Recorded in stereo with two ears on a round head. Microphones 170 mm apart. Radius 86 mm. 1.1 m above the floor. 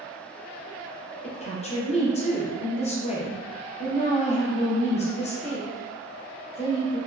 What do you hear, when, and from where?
1.2 s a woman speaking: 35° left (ahead or behind), 0.7 m